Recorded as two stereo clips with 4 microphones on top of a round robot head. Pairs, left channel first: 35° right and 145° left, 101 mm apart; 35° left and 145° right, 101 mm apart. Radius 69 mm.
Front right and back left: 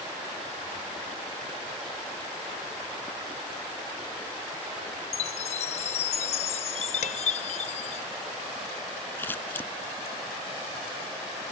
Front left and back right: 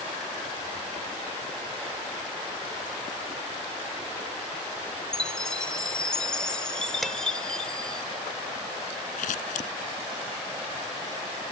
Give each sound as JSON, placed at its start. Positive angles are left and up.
{"t": 5.1, "sound": "a chime", "azimuth_deg": -45}
{"t": 7.0, "sound": "dishes clattering", "azimuth_deg": -55}
{"t": 9.2, "sound": "scissors", "azimuth_deg": 35}